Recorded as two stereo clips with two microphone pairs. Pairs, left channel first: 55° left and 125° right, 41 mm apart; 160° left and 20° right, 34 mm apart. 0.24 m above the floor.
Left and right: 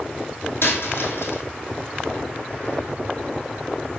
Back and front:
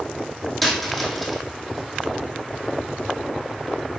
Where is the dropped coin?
70° left, 2.5 m.